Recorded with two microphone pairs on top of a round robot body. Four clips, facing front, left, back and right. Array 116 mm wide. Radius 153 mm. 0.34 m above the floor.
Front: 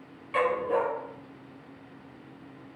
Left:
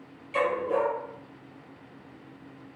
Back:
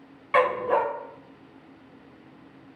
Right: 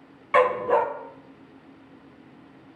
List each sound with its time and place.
0.3 s a dog barking: 125° right, 0.9 m